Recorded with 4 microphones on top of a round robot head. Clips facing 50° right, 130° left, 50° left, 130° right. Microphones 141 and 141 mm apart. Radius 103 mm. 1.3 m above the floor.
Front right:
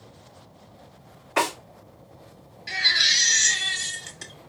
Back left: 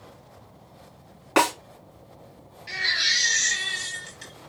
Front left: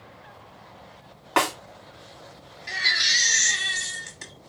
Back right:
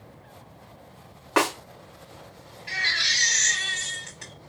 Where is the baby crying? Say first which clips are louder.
Front right 2 dB, front left 1 dB; 5° right, 1.2 m.